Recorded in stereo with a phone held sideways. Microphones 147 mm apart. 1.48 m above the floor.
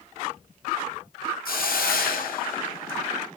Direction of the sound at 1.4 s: 85° left.